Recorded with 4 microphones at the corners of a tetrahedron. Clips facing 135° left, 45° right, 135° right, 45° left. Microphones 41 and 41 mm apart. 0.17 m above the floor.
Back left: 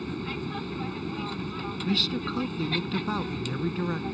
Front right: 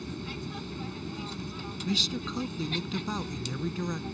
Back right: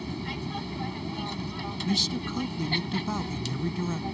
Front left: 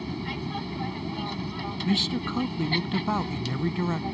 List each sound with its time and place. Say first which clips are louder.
0.0 s an aircraft: back left 5 dB, front left 2 dB; 120° left
1.9 s a man speaking: back left 2 dB, front left 3 dB; 80° left